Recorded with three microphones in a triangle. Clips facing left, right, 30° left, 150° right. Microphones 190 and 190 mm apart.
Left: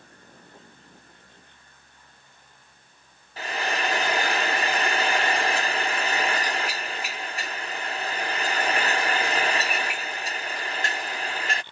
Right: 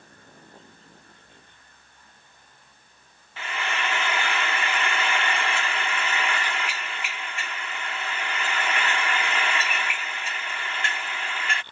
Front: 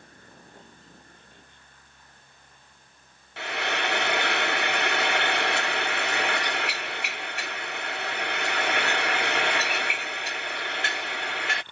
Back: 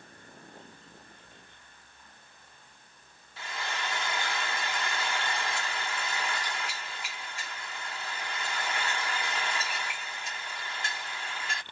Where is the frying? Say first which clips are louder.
Left 3 dB, front 8 dB; 40° left.